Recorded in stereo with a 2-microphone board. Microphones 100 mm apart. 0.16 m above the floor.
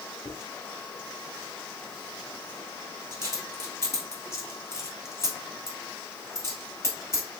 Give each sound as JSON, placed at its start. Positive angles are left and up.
{"t": 0.2, "sound": "a dropped coin", "side_deg": 30, "distance_m": 1.9}